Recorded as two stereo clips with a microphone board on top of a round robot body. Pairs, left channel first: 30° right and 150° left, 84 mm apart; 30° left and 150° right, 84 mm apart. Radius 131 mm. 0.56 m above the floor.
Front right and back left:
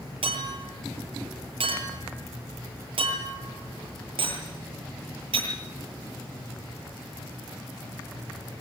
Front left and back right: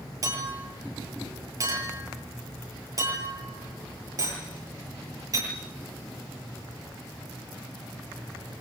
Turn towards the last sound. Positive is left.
turn(degrees=160)